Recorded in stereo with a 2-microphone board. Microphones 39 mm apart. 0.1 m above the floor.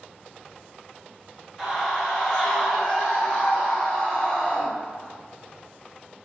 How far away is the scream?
About 1.2 m.